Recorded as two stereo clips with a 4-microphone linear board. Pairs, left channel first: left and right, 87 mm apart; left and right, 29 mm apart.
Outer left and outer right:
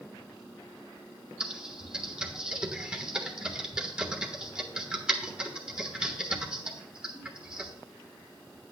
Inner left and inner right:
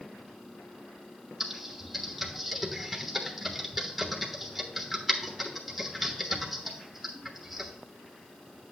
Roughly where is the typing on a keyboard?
Centre.